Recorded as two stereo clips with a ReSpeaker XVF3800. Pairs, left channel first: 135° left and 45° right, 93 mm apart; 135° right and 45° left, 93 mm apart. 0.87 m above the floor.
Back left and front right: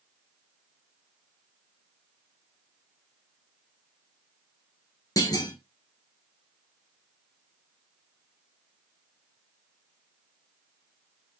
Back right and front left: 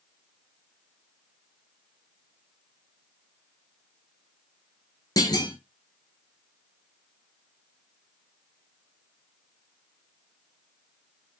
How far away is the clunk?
About 1.9 m.